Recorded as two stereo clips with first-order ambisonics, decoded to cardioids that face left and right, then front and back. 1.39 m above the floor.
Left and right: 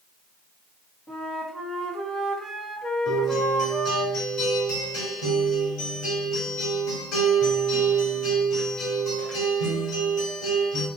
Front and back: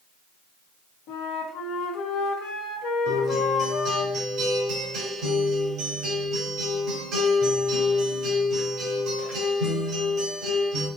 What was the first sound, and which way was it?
A flute, 15° left.